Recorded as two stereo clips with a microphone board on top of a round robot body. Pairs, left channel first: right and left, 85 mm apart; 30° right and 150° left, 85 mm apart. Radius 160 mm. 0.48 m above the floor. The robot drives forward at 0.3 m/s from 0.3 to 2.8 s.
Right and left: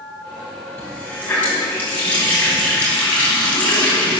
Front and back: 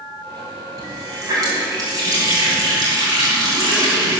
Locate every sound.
0.8 s a running tap: 160° right, 3 m